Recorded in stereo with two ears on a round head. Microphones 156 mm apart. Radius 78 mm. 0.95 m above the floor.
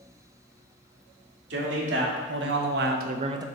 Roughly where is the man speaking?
Right.